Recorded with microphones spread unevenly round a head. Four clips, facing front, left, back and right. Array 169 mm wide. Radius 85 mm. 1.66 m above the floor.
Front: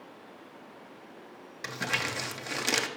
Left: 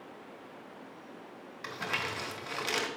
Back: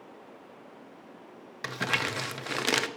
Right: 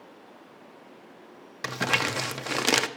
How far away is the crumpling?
About 0.7 m.